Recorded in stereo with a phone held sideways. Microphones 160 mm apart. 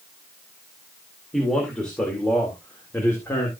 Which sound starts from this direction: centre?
A man speaking, at 1.3 s.